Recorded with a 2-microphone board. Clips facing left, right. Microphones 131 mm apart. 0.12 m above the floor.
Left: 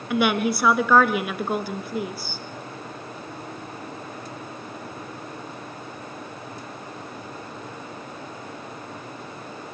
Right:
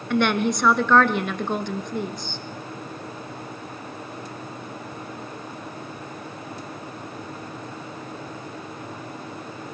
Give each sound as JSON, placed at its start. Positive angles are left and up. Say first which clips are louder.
{"t": 0.1, "sound": "a woman speaking", "louder": "even", "side_deg": 10, "distance_m": 1.2}